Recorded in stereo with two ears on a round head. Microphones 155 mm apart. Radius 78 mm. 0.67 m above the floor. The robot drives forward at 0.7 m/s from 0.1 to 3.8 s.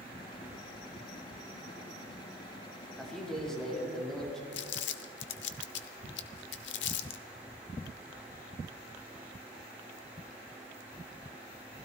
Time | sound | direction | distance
3.0 | a man speaking | 5° left (ahead or behind) | 3.5 m
4.5 | crumpling | 75° left (ahead or behind) | 0.9 m